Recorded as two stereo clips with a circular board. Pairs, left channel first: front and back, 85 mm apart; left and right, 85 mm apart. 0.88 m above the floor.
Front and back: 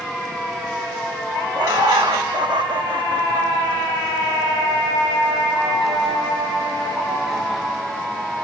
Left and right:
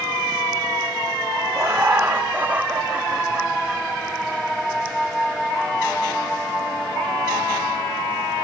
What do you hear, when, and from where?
1.6 s laughter: 145° right, 4.5 m; by 3.8 s straight behind, 5 m